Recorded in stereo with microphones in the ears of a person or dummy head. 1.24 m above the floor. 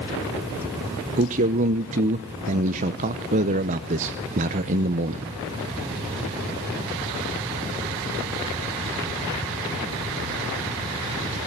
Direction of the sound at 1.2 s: 45° right (ahead or behind).